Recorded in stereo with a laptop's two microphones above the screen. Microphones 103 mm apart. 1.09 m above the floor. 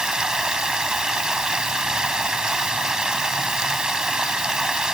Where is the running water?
5° right (ahead or behind).